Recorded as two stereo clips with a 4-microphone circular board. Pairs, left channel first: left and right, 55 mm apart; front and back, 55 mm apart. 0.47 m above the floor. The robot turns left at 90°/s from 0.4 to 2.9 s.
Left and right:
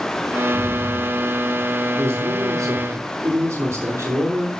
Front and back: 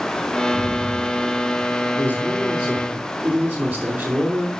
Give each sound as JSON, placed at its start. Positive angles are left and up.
{"t": 0.5, "sound": "an explosion", "azimuth_deg": -50, "distance_m": 3.5}
{"t": 2.0, "sound": "a man speaking", "azimuth_deg": -45, "distance_m": 5.5}